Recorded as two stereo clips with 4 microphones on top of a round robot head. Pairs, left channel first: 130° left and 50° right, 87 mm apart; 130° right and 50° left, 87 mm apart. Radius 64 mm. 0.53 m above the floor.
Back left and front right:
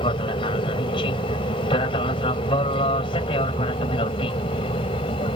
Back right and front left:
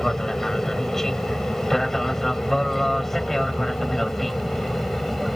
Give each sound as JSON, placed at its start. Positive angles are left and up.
{"t": 0.0, "sound": "an aircraft", "azimuth_deg": 145}